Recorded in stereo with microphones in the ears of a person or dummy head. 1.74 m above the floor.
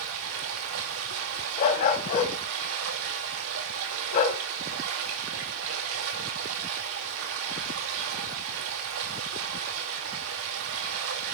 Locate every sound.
0.0 s running water: 70° right (ahead or behind), 2 m
1.6 s a dog barking: 45° left (ahead or behind), 3.5 m